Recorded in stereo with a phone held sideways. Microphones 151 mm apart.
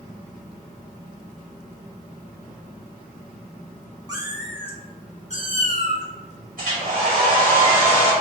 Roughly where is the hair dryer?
Right.